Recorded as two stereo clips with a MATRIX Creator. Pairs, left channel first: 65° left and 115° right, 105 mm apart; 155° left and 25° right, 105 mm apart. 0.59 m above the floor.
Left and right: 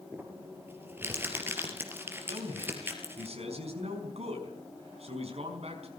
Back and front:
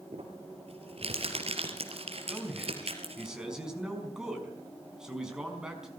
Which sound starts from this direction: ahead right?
Crumpling, at 0.1 s.